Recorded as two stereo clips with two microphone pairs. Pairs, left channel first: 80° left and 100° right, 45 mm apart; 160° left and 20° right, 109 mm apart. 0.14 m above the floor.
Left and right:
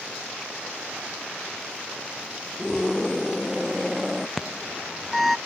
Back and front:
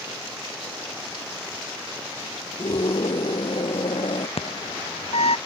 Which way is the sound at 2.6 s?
175° left.